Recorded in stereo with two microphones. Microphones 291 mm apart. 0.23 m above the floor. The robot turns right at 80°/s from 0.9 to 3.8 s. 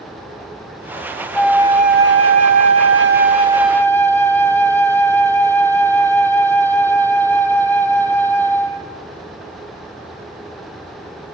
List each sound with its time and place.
1.4 s a flute: 175° left, 0.6 m; by 8.9 s 10° left, 0.6 m